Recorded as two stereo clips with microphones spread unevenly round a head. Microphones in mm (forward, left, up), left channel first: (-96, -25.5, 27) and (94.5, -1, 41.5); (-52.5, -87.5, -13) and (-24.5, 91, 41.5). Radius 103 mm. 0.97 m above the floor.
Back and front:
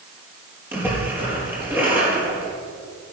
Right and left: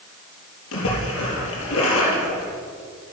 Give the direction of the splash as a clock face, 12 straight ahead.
2 o'clock.